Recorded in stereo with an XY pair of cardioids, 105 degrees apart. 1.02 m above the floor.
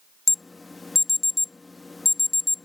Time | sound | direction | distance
0.3 | an alarm | 20° left | ?